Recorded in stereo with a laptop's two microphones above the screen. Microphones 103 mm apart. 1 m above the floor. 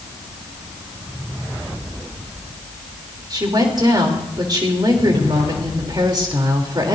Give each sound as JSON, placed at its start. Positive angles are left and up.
{"t": 3.3, "sound": "a woman speaking", "side_deg": -45, "distance_m": 3.0}